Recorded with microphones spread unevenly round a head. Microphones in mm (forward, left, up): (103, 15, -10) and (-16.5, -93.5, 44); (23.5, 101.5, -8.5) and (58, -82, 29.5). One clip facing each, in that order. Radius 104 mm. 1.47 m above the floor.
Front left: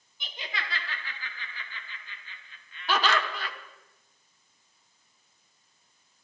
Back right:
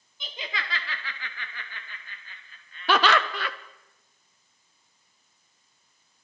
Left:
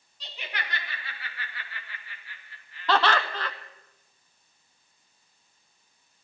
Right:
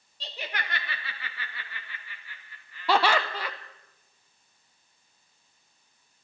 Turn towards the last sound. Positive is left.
turn(degrees=-155)